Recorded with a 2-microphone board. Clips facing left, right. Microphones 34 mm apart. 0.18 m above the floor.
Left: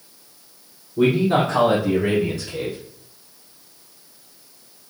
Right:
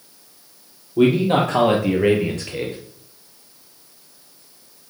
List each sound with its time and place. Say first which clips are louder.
1.0 s a man speaking: right 2 dB; 75° right (ahead or behind), 4.5 m; by 2.8 s 45° right (ahead or behind), 3 m